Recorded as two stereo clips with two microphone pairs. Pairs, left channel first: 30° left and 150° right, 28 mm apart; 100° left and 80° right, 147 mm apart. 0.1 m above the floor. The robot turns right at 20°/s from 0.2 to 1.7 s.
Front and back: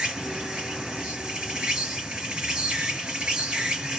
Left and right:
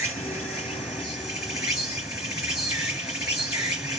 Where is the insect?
170° left, 2.5 m; by 4.0 s 160° right, 2.5 m.